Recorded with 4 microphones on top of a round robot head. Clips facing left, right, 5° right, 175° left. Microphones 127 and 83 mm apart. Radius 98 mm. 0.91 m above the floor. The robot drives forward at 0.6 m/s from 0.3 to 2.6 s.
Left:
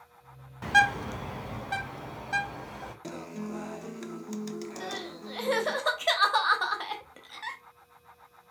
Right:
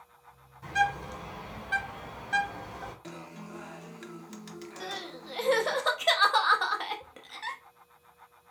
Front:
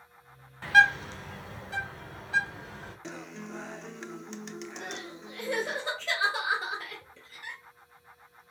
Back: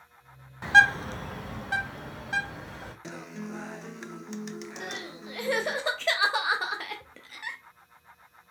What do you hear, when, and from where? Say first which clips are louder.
0.6 s a bird: left 3 dB, back 2 dB; 100° left, 0.6 m; by 2.9 s 155° left, 1.4 m
3.0 s a guitar: left 6 dB, back 2 dB; 90° left, 0.6 m
4.8 s crying: left 2 dB, back 2 dB; straight behind, 0.6 m